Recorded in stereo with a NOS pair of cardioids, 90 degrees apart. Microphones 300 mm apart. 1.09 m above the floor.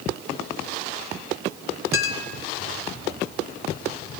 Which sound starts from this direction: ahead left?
A clink, at 1.9 s.